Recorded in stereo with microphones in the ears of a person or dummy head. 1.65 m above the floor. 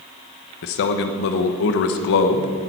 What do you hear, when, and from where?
0.6 s a man speaking: 55° left (ahead or behind), 1.2 m